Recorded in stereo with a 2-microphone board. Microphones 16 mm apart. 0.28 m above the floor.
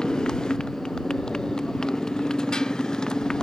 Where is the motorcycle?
45° left (ahead or behind).